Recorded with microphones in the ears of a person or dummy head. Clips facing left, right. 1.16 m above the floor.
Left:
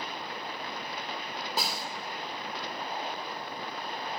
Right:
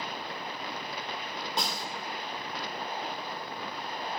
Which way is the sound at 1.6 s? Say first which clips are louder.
Even; 5° left (ahead or behind).